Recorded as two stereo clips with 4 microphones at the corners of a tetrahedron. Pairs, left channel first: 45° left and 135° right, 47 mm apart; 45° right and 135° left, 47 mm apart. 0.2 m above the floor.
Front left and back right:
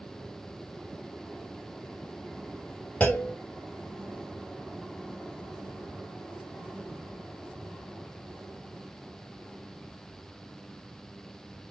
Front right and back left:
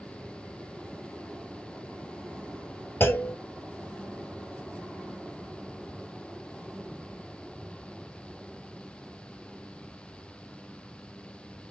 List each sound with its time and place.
3.0 s a clunk: 10° right, 1.4 m